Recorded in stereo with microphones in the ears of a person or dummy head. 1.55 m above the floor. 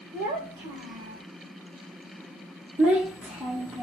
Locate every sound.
0.1 s a child speaking: 20° right (ahead or behind), 1.3 m
2.8 s a child speaking: 10° right (ahead or behind), 1.1 m